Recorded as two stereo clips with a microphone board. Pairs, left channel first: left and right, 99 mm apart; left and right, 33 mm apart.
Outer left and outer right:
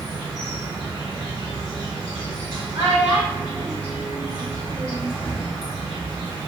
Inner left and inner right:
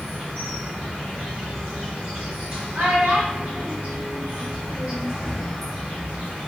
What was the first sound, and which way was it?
An insect, 55° right (ahead or behind).